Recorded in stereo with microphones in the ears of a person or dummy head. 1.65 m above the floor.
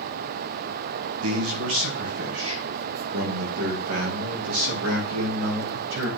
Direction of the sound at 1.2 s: 70° right (ahead or behind).